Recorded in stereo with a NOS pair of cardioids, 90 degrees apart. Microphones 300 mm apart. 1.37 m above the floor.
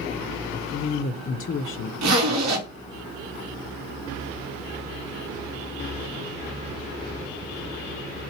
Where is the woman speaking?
45° left, 0.5 m.